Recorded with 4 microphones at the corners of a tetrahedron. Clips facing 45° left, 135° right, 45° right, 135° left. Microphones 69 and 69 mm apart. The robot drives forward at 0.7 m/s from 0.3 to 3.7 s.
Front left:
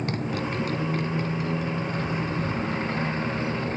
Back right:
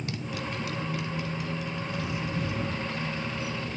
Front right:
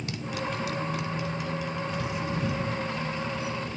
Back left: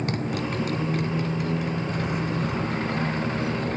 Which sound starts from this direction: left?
A motorcycle, at 0.0 s.